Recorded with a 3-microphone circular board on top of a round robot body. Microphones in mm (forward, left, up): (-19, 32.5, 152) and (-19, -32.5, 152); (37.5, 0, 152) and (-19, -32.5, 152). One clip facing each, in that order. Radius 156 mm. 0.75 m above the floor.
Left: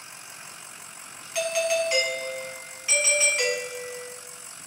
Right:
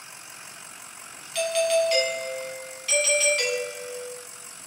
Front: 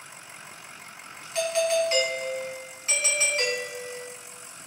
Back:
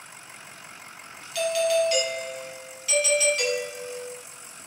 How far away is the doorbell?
About 1.1 m.